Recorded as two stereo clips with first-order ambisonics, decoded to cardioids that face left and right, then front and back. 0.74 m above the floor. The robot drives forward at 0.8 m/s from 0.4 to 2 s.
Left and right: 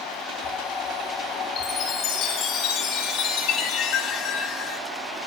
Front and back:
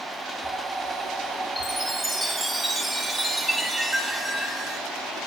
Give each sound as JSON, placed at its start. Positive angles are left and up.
{"t": 1.6, "sound": "a chime", "azimuth_deg": 80, "distance_m": 1.4}